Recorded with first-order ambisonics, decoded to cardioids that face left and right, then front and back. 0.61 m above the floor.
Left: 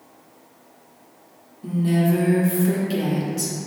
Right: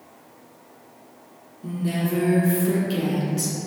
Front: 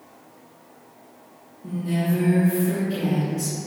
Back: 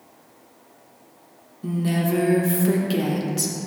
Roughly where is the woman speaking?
Behind.